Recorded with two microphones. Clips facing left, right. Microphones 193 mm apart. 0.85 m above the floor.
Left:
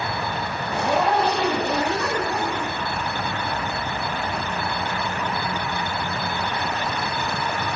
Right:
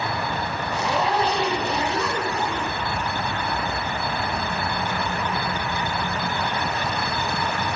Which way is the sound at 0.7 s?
60° left (ahead or behind).